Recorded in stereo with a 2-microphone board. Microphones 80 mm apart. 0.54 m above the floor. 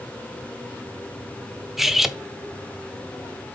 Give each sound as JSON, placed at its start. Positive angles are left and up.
{"t": 1.8, "sound": "cutlery clinking", "side_deg": 0, "distance_m": 0.5}